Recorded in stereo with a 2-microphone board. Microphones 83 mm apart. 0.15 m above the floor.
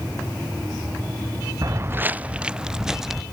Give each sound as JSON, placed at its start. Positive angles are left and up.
{"t": 1.6, "sound": "footsteps", "side_deg": -45}